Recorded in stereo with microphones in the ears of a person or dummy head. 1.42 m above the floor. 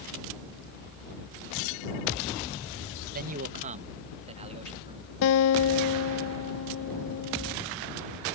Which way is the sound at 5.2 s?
75° left (ahead or behind).